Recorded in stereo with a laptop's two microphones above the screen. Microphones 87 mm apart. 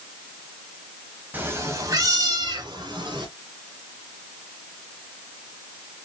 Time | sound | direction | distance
1.3 | a cat meowing | 20° right (ahead or behind) | 0.9 m